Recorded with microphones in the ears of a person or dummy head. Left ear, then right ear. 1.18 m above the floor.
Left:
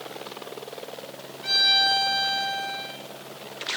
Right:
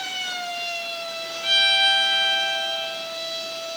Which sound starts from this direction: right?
A violin, at 1.4 s.